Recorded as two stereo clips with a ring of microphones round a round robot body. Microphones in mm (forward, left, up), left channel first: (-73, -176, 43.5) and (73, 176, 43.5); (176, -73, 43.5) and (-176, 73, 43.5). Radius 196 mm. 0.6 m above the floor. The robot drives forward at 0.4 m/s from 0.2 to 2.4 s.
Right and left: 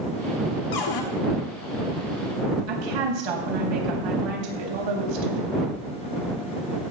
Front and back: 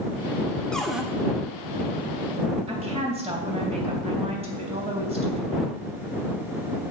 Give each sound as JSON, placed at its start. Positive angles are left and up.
{"t": 0.7, "sound": "a cupboard door", "azimuth_deg": -110, "distance_m": 1.5}
{"t": 2.7, "sound": "a woman speaking", "azimuth_deg": 85, "distance_m": 3.5}